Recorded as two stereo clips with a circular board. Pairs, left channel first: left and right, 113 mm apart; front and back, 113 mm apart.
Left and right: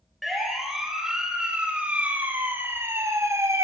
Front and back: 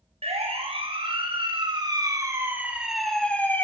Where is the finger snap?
I don't hear a finger snap.